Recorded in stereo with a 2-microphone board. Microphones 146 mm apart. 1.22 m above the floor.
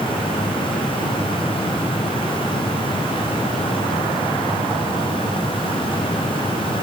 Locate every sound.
Only background noise.